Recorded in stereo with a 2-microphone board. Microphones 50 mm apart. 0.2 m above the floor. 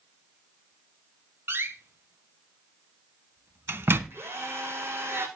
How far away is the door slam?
About 1.4 m.